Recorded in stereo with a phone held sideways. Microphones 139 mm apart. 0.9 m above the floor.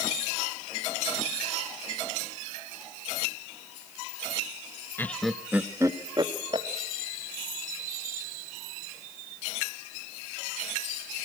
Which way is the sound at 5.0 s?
15° left (ahead or behind).